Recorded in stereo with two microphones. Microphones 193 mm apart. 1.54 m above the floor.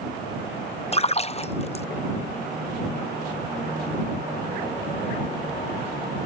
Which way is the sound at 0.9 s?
35° left (ahead or behind).